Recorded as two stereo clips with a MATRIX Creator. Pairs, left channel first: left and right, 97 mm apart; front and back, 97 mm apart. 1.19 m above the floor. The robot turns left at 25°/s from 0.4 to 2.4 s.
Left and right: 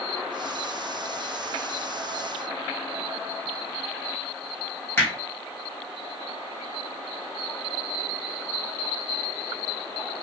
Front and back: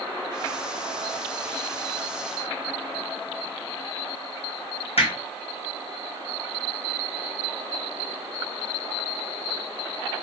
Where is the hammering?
20° left, 1.5 m.